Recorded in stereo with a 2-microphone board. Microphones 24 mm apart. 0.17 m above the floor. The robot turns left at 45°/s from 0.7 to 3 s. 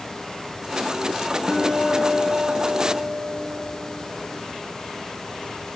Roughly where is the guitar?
Ahead left.